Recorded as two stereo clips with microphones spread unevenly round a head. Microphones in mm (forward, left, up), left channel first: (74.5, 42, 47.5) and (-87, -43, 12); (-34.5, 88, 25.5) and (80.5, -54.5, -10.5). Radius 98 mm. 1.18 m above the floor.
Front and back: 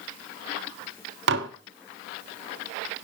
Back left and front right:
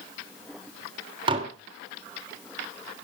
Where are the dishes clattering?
120° right, 1.4 m.